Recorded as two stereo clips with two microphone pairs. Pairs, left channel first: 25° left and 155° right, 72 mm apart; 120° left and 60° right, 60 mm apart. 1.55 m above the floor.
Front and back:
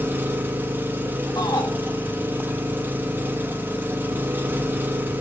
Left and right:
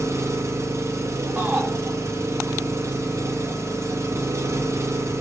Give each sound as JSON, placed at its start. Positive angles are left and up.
{"t": 0.0, "sound": "an engine running", "azimuth_deg": -95, "distance_m": 2.5}
{"t": 1.4, "sound": "a shout", "azimuth_deg": 0, "distance_m": 8.5}